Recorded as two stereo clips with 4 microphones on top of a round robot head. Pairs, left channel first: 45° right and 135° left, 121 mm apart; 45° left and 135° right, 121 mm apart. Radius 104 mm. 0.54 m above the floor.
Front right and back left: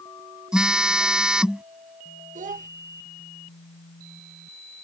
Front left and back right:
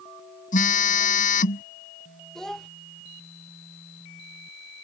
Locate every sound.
0.5 s a phone buzzing: 50° left
2.4 s a child speaking: 130° left